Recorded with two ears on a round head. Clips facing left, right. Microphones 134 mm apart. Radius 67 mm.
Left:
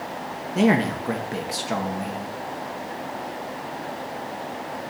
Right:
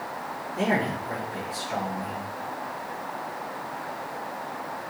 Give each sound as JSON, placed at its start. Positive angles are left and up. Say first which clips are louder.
{"t": 0.6, "sound": "a man speaking", "louder": "left 6 dB", "side_deg": 75, "distance_m": 1.4}